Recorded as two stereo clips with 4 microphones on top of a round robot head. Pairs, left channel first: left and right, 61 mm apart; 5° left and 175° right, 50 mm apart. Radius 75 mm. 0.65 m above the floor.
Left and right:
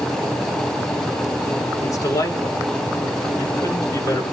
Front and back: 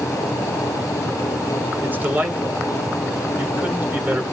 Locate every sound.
1.8 s a man speaking: 130° left, 4 m